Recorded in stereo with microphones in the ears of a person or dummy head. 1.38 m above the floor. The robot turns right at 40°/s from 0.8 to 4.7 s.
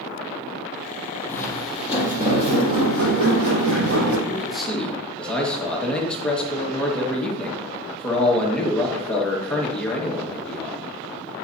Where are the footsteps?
10° left (ahead or behind), 2.5 m; by 4.2 s 65° right (ahead or behind), 4.5 m.